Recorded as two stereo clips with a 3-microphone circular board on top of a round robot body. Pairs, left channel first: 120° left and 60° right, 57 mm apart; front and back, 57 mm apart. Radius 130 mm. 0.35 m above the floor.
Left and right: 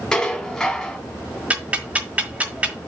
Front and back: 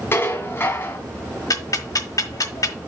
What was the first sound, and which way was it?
Dishes clattering, 40° left.